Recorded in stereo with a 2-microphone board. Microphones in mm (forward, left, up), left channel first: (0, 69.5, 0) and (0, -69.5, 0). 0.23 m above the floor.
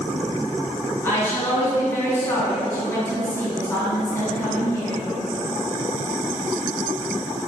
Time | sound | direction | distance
1.0 | a woman speaking | 20° left (ahead or behind) | 1.8 m